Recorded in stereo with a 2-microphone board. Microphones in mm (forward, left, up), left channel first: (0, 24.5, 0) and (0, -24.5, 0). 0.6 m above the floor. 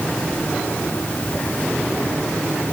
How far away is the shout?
No shout in this recording.